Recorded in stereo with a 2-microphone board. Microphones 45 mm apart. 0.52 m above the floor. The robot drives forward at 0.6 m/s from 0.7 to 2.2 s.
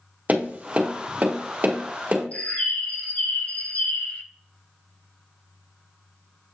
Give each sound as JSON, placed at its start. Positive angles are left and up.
{"t": 0.3, "sound": "tapping", "side_deg": -40, "distance_m": 1.3}
{"t": 2.3, "sound": "a bird", "side_deg": 30, "distance_m": 0.8}